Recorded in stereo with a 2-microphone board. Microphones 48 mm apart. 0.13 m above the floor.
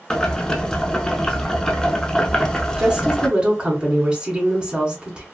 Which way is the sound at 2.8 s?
20° right (ahead or behind).